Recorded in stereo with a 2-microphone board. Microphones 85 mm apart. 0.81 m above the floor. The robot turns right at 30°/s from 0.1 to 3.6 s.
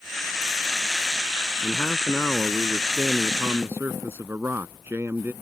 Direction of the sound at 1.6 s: 150° left.